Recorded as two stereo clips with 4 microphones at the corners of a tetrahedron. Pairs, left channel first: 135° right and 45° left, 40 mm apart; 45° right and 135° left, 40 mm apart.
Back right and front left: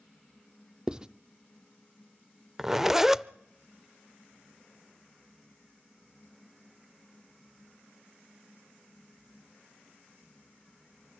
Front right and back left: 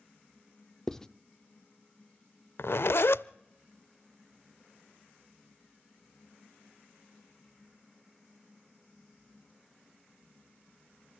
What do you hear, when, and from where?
0.9 s writing: 10° left, 0.6 m
2.6 s a zipper: 35° right, 0.5 m